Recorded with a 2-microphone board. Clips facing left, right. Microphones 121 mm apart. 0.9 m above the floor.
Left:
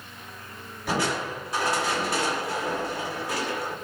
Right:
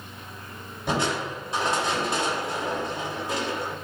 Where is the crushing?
25° right (ahead or behind), 3 m.